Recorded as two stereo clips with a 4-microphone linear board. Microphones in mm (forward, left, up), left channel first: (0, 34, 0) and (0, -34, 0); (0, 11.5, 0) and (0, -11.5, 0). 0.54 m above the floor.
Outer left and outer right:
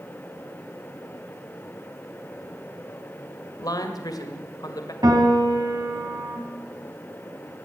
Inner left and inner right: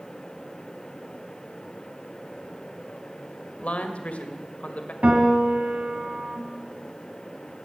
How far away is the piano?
About 3 m.